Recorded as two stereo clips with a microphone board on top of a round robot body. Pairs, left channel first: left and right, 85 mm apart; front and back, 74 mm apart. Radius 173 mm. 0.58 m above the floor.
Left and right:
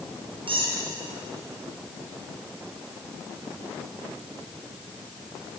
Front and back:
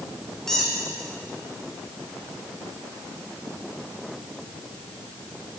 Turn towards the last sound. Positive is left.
turn(degrees=-85)